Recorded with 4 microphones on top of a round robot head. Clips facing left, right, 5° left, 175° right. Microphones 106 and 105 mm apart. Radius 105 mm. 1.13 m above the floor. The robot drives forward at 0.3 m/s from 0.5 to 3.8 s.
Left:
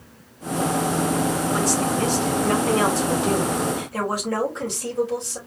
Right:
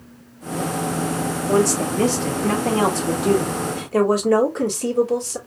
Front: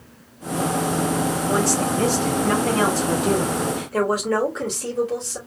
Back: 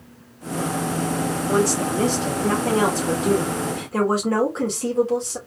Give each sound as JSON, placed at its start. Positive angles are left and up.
{"t": 1.5, "sound": "a woman speaking", "azimuth_deg": -100, "distance_m": 2.0}